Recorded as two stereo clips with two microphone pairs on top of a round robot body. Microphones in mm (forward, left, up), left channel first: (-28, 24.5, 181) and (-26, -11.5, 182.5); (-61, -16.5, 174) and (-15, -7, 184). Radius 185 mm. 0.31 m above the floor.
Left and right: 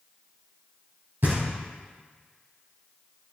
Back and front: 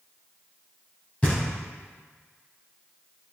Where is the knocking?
110° right, 3 m.